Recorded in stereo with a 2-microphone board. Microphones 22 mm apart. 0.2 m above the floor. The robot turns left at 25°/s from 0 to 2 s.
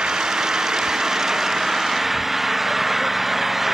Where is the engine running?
125° right; by 3.8 s 175° right.